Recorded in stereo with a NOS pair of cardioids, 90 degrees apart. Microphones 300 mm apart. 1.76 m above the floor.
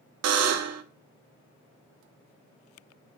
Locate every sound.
0.2 s a buzzer: 60° right, 0.6 m